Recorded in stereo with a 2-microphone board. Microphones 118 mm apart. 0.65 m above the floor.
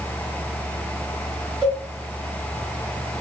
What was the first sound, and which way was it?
A cowbell, 30° right (ahead or behind).